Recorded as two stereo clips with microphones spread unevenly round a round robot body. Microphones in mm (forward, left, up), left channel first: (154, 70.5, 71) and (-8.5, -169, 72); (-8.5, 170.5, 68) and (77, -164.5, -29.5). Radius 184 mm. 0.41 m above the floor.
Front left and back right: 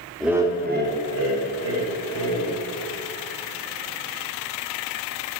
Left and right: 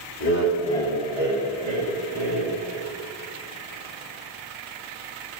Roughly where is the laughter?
Behind left.